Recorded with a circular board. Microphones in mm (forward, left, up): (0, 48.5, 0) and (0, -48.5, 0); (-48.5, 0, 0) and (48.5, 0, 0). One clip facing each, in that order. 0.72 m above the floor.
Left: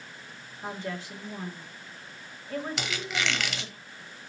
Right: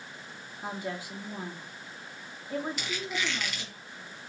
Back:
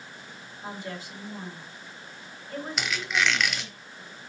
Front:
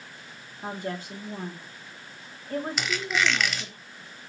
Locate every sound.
0.6 s a woman speaking: 20° right, 1.7 m
2.8 s a squeak: 90° left, 0.9 m